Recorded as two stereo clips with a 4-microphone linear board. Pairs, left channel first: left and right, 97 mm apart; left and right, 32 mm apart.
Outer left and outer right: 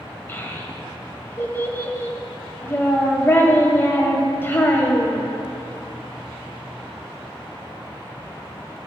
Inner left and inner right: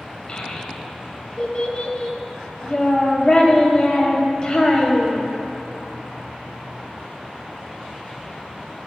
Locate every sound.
0.3 s a child speaking: 25° left (ahead or behind), 1.4 m